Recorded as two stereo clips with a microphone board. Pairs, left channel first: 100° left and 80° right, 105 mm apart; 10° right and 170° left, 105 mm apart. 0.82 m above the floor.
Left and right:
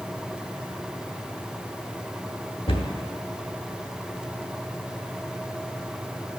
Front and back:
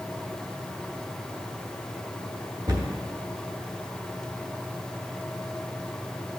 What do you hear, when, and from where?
2.7 s a cupboard door: 120° left, 1.0 m